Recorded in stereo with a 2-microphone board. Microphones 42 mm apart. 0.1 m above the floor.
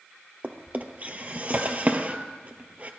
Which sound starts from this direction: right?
A drawer, at 0.4 s.